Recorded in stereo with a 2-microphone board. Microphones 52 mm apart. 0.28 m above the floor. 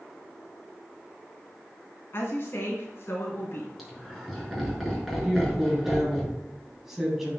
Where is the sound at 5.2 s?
10° right (ahead or behind), 2.5 m.